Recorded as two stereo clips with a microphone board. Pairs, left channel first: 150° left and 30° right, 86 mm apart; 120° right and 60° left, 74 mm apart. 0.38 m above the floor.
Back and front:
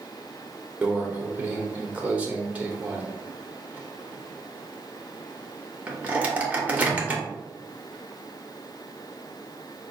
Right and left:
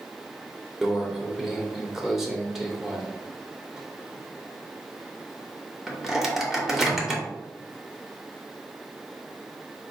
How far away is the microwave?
About 0.6 m.